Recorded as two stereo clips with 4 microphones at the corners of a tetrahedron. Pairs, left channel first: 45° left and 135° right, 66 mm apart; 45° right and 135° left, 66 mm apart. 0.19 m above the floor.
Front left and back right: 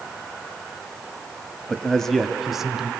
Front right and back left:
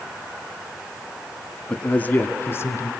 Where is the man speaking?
5° right, 1.0 m; by 2.9 s 60° right, 1.3 m.